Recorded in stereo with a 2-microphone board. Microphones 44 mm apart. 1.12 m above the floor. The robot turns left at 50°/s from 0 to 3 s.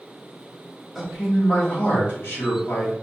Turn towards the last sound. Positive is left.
turn(degrees=75)